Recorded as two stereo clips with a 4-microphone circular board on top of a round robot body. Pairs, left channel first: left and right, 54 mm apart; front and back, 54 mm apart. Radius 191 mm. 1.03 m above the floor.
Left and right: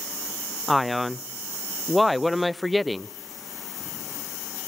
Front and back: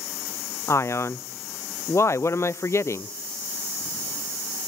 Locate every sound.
0.7 s a man speaking: straight ahead, 0.6 m